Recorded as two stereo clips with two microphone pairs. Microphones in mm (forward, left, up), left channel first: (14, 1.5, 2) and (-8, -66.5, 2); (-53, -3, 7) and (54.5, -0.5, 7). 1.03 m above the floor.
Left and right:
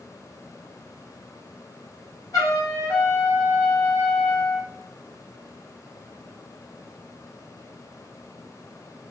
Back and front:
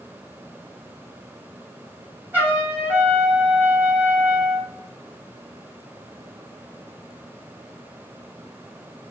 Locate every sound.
2.3 s a trumpet: 70° left, 1.6 m